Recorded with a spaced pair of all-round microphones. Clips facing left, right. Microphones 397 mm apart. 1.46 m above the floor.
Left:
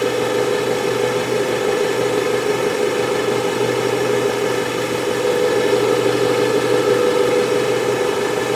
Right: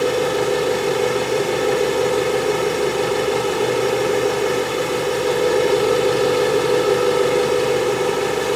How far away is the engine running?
About 3.5 m.